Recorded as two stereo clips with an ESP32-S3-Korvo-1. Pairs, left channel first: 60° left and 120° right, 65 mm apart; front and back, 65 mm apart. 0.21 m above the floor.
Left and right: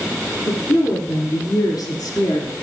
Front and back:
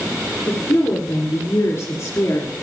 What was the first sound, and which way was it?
A woman speaking, 35° left.